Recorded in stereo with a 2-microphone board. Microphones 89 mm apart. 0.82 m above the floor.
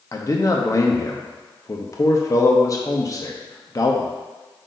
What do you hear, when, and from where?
0.1 s a man speaking: 40° left (ahead or behind), 0.7 m